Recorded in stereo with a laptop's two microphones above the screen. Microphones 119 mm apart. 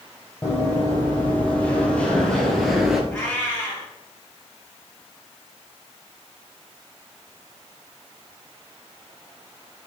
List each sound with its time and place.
0.4 s running footsteps: 15° left (ahead or behind), 2.0 m; by 3.0 s 5° right (ahead or behind), 0.9 m
3.1 s a cat meowing: 15° left (ahead or behind), 2 m